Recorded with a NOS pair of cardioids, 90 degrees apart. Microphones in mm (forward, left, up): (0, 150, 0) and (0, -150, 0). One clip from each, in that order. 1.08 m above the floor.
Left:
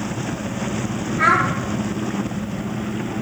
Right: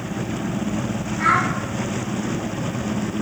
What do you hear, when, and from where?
1.2 s a child speaking: 60° left, 1.5 m